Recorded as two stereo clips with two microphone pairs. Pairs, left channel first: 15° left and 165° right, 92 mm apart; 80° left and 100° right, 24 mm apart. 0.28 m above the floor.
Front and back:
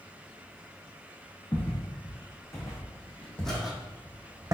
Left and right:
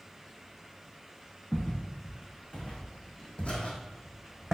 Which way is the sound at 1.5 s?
55° left.